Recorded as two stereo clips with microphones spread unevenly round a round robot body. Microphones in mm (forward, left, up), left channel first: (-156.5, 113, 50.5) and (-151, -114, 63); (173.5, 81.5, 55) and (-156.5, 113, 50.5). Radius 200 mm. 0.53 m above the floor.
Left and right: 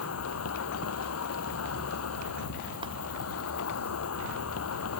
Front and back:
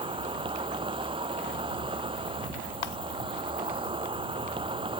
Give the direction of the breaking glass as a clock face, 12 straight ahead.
12 o'clock.